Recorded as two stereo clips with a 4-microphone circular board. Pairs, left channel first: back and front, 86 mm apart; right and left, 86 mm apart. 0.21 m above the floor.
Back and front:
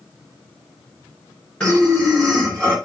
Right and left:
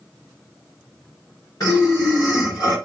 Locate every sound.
1.6 s breathing: 105° right, 2 m